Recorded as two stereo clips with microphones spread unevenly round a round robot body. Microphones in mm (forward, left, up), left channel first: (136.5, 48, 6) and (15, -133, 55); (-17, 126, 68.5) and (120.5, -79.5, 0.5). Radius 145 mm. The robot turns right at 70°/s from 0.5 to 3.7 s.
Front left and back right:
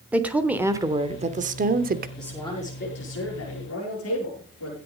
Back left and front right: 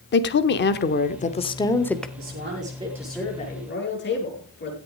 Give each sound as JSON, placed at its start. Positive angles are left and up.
{"t": 0.1, "sound": "a woman speaking", "azimuth_deg": 135, "distance_m": 1.1}
{"t": 2.2, "sound": "a man speaking", "azimuth_deg": -30, "distance_m": 8.5}